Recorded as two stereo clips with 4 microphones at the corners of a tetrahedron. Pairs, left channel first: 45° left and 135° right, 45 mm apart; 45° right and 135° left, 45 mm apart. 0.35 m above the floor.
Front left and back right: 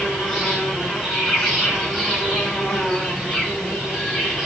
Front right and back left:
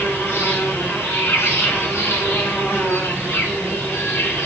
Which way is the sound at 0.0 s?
40° right.